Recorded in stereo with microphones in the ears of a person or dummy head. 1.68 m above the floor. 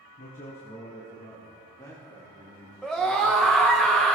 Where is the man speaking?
40° left (ahead or behind), 1.4 m; by 3.8 s 10° left (ahead or behind), 5.5 m.